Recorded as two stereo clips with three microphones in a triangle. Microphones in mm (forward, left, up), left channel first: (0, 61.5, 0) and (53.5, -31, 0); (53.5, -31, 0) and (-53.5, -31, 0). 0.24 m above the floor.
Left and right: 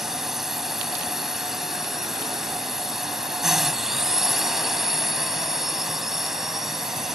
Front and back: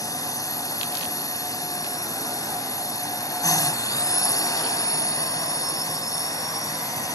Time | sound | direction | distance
0.0 | a drone | 25° left | ?